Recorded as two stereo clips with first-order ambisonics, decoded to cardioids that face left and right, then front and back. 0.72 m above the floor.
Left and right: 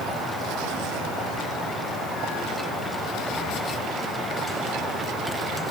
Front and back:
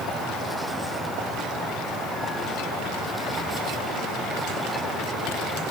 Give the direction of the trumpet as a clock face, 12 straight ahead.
No trumpet in this recording.